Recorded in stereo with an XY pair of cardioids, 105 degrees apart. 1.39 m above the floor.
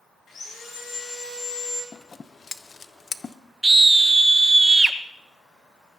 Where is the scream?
15° right, 1.2 m.